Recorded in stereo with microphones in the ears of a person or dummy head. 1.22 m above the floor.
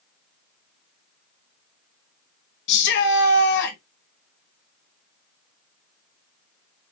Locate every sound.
2.7 s a shout: 60° left (ahead or behind), 1.2 m